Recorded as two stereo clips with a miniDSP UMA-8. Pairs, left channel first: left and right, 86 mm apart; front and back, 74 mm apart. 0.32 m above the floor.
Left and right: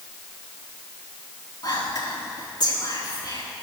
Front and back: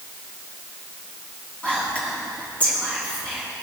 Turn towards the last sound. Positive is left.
turn(degrees=70)